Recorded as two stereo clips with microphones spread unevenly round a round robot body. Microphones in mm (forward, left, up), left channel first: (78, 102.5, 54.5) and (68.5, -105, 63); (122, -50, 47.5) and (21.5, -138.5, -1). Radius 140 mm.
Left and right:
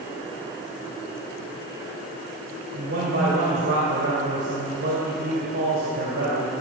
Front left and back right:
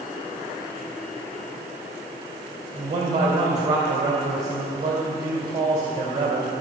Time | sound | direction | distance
2.7 | a man speaking | 140° right | 2.5 m